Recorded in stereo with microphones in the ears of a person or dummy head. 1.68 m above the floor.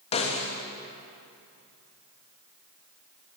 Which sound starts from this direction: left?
A snare drum, at 0.1 s.